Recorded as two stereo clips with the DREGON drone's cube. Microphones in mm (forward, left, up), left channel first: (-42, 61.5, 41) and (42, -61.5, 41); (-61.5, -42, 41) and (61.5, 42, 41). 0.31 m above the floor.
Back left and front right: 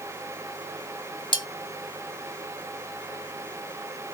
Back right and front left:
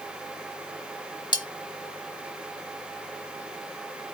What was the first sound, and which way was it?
Cutlery clinking, 170° left.